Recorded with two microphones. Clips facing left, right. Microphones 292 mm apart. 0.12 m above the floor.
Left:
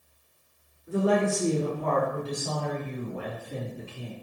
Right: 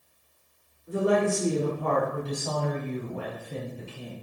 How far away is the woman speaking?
About 1.9 m.